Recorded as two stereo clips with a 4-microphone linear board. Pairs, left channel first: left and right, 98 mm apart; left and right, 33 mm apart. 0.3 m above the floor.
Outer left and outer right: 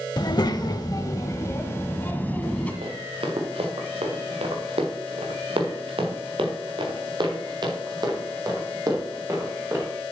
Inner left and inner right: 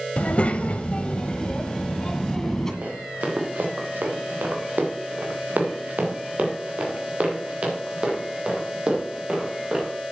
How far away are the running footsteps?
About 3 m.